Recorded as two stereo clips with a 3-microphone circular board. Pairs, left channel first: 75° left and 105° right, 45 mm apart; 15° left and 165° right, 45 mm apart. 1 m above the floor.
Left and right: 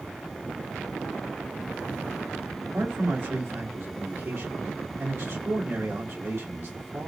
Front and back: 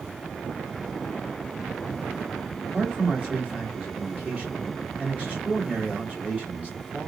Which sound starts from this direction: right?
A man speaking, at 2.6 s.